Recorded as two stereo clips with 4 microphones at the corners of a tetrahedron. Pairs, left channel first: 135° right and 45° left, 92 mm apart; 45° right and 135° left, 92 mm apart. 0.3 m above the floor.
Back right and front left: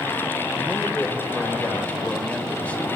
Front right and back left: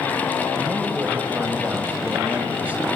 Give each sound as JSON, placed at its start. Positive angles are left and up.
{"t": 0.6, "sound": "a man speaking", "azimuth_deg": 175, "distance_m": 1.1}